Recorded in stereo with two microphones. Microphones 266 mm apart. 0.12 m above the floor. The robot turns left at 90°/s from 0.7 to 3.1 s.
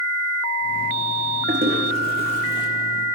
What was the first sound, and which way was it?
A toilet flushing, 35° right (ahead or behind).